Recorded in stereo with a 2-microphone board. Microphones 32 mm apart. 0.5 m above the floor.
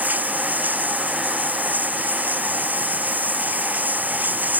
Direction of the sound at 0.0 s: 70° right (ahead or behind).